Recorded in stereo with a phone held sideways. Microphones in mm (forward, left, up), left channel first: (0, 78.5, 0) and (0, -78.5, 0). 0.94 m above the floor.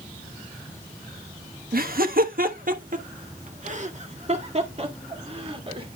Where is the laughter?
70° right (ahead or behind), 1.3 m; by 5.9 s 35° right (ahead or behind), 3 m.